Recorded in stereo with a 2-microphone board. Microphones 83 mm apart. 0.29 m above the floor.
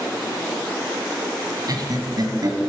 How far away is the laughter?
About 1.7 m.